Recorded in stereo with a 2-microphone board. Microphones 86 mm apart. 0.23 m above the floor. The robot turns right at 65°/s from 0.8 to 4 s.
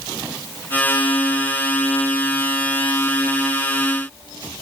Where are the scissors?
I don't hear scissors.